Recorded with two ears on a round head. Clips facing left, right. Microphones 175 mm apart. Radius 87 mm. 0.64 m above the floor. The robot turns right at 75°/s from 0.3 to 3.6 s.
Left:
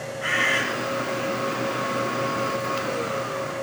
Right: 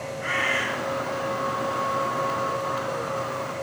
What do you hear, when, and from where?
0.2 s a bird: 70° left (ahead or behind), 3.5 m; by 0.6 s 75° left (ahead or behind), 3.5 m